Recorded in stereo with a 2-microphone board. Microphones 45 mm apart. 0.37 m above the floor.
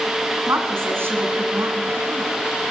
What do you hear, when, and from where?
0.5 s a woman speaking: 65° right (ahead or behind), 2.5 m